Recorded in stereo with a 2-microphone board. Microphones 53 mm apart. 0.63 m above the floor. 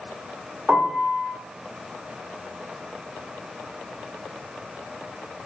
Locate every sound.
0.7 s a piano: 10° right (ahead or behind), 0.8 m